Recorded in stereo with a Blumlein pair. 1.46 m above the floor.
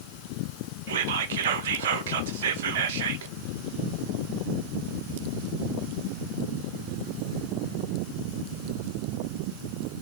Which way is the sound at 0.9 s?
55° right.